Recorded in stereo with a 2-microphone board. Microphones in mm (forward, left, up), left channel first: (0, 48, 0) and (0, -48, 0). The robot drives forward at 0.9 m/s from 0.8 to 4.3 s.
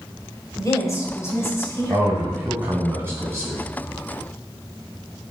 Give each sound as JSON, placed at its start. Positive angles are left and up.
{"t": 0.6, "sound": "a woman speaking", "side_deg": 35, "distance_m": 2.0}
{"t": 1.9, "sound": "a man speaking", "side_deg": -30, "distance_m": 1.8}